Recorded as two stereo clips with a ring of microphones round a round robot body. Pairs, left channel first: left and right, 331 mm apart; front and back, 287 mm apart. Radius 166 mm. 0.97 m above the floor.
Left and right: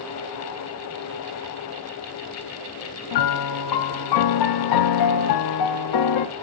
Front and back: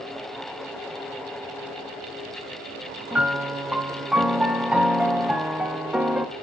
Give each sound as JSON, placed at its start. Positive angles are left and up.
{"t": 3.1, "sound": "a piano", "azimuth_deg": 95, "distance_m": 0.5}